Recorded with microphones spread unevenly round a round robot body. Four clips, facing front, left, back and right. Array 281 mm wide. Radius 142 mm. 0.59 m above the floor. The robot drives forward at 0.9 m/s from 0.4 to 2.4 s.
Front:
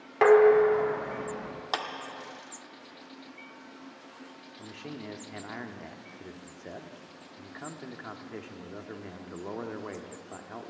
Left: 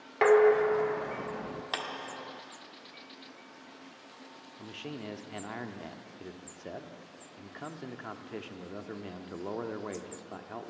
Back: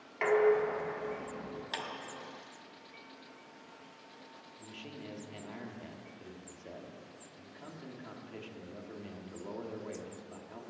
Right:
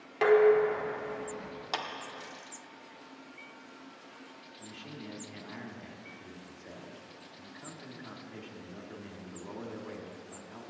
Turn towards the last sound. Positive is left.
turn(degrees=55)